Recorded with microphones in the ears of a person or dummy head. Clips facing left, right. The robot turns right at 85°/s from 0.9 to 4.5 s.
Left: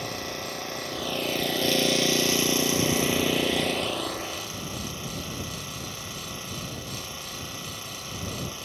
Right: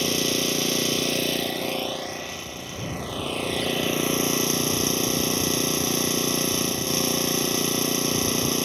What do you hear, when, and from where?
0.0 s an engine running: 50° right; by 8.7 s 105° right